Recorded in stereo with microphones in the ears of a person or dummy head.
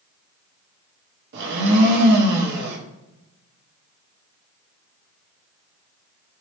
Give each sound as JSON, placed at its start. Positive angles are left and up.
{"t": 1.3, "sound": "a blender", "side_deg": -65, "distance_m": 0.8}